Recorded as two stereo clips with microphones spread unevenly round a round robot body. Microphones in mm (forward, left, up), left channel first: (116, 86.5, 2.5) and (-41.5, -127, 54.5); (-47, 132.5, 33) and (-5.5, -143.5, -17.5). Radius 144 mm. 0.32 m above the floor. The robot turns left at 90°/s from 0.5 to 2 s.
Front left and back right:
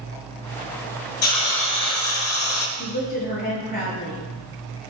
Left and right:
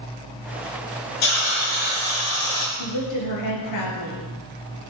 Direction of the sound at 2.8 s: 115° left.